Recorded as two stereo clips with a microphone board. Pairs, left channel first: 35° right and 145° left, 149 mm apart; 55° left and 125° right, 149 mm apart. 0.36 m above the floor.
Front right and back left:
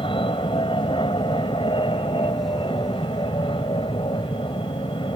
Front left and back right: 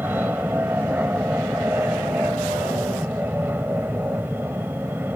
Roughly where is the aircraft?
Ahead right.